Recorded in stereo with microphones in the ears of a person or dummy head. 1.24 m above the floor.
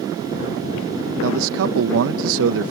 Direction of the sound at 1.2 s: 75° right (ahead or behind).